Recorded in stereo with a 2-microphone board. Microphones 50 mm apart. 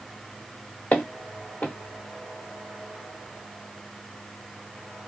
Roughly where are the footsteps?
Left.